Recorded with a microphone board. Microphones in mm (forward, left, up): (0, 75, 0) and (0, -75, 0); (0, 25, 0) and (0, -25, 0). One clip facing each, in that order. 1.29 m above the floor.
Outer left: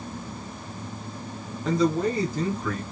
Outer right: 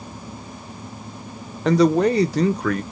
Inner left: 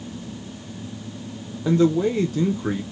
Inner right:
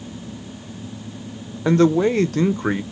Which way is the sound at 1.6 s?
75° right (ahead or behind).